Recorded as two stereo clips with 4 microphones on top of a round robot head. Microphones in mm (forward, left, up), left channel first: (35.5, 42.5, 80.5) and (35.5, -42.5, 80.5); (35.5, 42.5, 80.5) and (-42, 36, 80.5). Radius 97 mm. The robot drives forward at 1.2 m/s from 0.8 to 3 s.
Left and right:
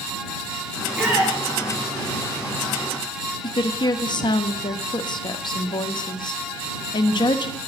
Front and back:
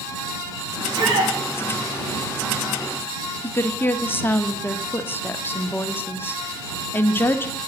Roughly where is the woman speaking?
Ahead left.